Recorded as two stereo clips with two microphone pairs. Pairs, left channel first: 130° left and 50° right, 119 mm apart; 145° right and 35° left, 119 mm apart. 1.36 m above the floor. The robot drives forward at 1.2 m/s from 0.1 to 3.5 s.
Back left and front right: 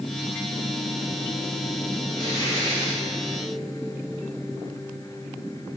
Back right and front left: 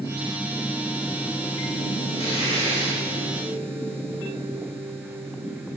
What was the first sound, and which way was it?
Tearing paper, 175° right.